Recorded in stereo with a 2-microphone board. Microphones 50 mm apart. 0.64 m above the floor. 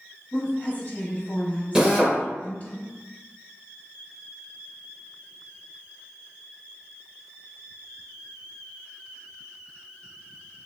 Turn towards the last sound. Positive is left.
turn(degrees=-10)  # may be behind; listen again after turning